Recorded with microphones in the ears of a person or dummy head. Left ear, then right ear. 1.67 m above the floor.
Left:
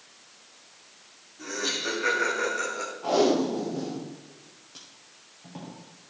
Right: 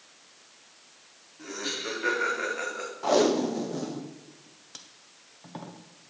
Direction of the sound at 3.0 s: 45° right (ahead or behind).